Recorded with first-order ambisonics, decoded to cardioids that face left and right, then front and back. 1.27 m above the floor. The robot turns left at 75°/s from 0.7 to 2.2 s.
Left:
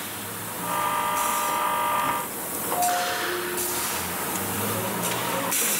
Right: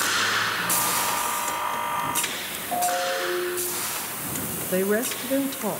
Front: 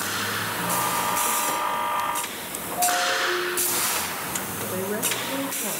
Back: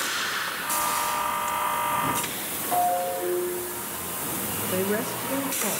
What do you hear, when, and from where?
2.7 s a ringtone: 130° right, 7.5 m
4.7 s a woman speaking: 100° right, 1.2 m